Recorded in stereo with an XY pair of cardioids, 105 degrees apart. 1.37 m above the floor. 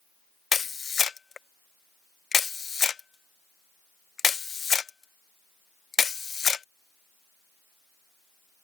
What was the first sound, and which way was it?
A camera shutter, 40° left.